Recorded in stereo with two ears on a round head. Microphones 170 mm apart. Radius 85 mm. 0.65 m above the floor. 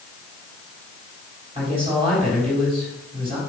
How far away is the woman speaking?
About 3.5 m.